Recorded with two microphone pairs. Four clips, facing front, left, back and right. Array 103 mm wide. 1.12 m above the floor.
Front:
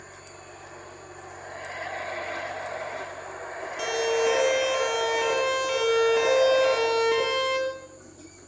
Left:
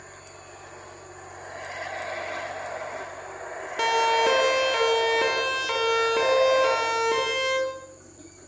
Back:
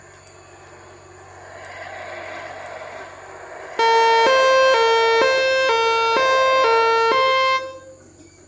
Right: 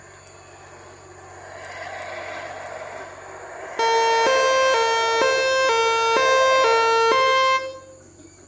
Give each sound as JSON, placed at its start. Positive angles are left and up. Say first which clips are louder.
{"t": 3.8, "sound": "a siren", "louder": "right 4 dB, back 11 dB", "azimuth_deg": -165, "distance_m": 3.5}